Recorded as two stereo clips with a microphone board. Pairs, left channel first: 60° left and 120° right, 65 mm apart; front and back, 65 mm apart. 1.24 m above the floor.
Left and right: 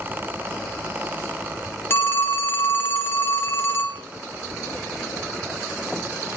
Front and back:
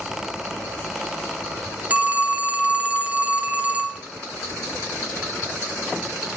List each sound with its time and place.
1.9 s a phone ringing: 115° left, 0.8 m